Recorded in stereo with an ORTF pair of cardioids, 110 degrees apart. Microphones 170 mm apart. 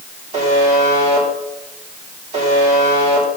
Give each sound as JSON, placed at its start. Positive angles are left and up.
{"t": 0.3, "sound": "a buzzer", "azimuth_deg": -40, "distance_m": 3.0}